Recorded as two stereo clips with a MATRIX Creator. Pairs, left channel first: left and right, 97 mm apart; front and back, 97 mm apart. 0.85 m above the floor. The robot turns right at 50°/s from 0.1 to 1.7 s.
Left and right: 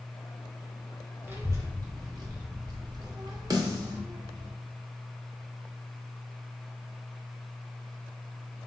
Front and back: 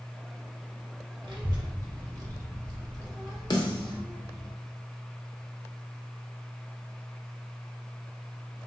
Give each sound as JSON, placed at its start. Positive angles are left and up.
{"t": 1.2, "sound": "a child speaking", "azimuth_deg": -150, "distance_m": 0.7}
{"t": 3.5, "sound": "a snare drum", "azimuth_deg": -40, "distance_m": 0.8}